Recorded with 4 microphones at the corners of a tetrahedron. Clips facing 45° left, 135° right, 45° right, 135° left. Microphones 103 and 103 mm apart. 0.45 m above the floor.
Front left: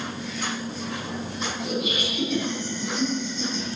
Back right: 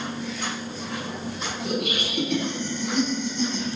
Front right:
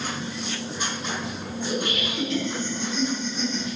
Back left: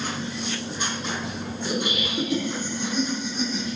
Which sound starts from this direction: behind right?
Laughter, at 1.6 s.